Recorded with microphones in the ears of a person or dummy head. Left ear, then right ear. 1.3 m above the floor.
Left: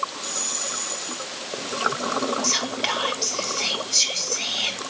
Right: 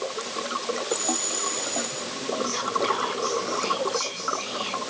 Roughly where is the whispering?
Left.